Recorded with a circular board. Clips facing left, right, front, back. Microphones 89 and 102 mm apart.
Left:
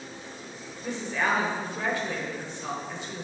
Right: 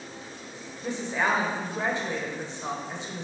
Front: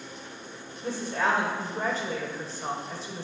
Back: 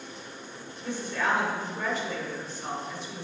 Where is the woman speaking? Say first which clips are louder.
Right 1 dB, front 2 dB; 30° right, 1.5 m.